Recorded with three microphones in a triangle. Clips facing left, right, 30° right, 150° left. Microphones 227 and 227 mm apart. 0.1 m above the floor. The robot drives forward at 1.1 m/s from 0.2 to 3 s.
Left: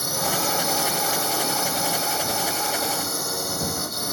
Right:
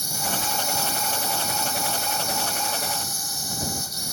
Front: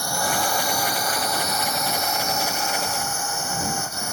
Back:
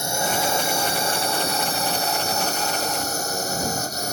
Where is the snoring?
I don't hear snoring.